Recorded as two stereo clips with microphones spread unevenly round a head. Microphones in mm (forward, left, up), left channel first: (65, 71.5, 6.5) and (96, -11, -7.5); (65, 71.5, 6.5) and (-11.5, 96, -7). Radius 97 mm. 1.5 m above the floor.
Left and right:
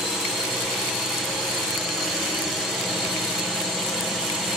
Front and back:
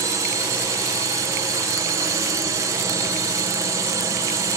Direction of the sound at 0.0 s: 155° right.